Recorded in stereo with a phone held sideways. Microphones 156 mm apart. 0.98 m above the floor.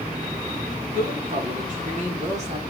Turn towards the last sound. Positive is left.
turn(degrees=-45)  # may be behind; listen again after turning